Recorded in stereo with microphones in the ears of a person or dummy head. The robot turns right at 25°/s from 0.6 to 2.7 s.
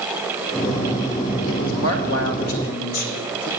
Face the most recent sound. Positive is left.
turn(degrees=105)